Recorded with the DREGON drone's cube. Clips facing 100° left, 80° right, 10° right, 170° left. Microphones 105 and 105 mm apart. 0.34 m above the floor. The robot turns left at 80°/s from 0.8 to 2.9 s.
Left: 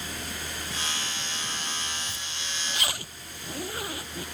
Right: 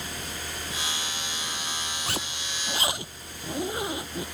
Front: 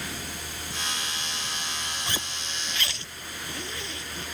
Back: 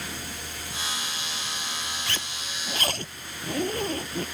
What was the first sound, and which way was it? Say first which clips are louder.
A zipper: right 5 dB, even; 80° right.